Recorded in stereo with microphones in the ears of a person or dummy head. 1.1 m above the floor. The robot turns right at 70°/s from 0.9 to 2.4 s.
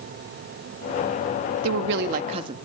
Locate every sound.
1.6 s a woman speaking: 85° right, 1.3 m; by 2.5 s 30° right, 1.3 m